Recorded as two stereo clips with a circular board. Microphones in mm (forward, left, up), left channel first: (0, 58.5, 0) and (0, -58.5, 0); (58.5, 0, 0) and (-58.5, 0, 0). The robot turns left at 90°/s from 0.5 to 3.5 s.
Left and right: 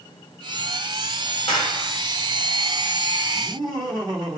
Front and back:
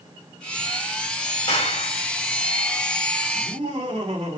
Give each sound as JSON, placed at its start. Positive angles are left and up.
{"t": 1.5, "sound": "a clap", "azimuth_deg": 50, "distance_m": 9.5}
{"t": 3.3, "sound": "laughter", "azimuth_deg": -120, "distance_m": 5.0}